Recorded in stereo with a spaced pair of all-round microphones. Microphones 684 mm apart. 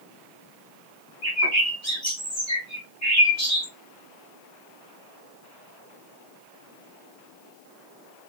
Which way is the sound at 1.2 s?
25° left (ahead or behind).